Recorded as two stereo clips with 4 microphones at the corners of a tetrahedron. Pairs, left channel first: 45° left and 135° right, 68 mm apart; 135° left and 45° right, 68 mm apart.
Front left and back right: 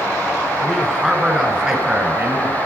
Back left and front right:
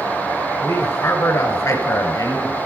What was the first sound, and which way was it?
A man speaking, 155° left.